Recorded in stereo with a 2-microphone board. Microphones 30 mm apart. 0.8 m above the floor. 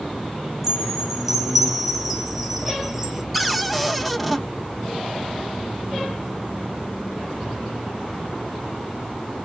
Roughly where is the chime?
Centre.